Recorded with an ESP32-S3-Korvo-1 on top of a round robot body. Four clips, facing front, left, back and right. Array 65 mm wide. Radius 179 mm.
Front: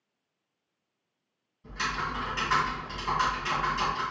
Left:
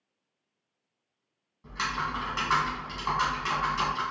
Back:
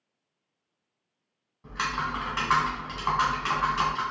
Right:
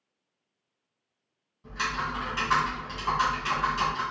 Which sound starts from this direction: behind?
Typing on a keyboard, at 1.6 s.